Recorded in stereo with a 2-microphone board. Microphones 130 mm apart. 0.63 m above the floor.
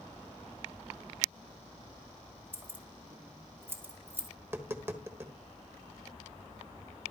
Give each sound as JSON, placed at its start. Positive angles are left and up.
{"t": 2.5, "sound": "keys jangling", "side_deg": -15, "distance_m": 1.9}
{"t": 4.4, "sound": "tapping", "side_deg": -15, "distance_m": 1.3}